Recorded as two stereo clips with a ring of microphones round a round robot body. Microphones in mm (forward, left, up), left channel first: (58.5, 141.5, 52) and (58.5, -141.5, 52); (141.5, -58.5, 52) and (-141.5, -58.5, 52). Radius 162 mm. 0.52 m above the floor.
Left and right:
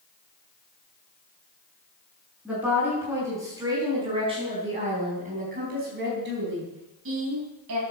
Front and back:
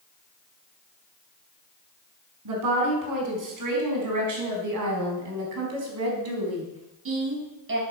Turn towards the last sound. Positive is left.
turn(degrees=-130)